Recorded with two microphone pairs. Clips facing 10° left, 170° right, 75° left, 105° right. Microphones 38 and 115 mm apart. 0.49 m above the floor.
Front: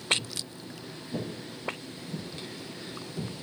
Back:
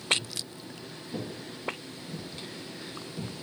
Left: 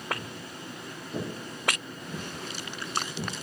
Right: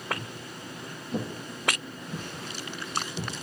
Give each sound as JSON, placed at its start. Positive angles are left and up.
{"t": 0.1, "sound": "footsteps", "azimuth_deg": -65, "distance_m": 4.5}